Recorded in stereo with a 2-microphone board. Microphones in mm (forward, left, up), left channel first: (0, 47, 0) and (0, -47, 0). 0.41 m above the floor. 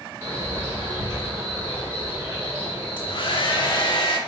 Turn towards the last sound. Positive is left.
turn(degrees=55)  # may be behind; listen again after turning